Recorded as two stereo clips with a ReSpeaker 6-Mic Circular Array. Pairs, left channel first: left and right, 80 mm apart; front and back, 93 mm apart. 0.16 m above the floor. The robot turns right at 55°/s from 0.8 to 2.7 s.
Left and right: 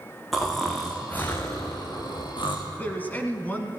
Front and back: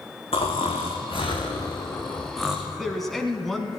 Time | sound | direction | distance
0.3 | snoring | straight ahead | 2 m
2.7 | a man speaking | 85° left | 1.2 m